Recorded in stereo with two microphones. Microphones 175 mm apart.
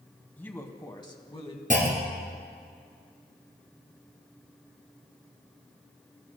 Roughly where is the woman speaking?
Centre.